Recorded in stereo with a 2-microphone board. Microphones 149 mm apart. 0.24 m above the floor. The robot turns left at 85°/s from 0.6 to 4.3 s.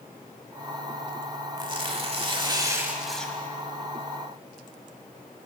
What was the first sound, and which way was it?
Tearing paper, 50° right.